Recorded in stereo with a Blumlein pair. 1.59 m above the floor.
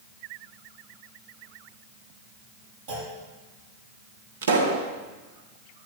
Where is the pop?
60° right, 1.7 m.